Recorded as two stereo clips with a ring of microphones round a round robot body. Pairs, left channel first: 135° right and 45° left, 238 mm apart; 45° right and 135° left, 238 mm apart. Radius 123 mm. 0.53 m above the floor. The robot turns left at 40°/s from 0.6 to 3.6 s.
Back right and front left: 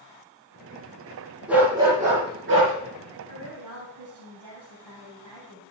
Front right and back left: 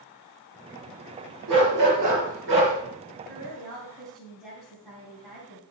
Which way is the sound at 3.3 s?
60° left.